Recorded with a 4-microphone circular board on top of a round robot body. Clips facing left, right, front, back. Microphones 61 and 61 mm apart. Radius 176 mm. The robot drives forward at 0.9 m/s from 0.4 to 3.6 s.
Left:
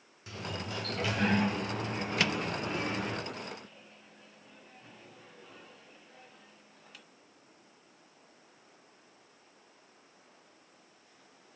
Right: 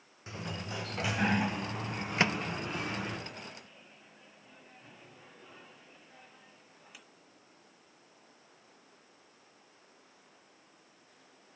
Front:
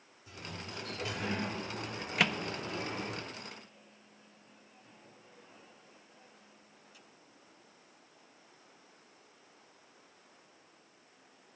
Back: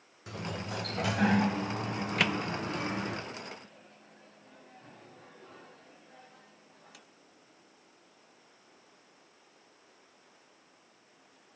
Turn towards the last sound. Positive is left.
turn(degrees=-170)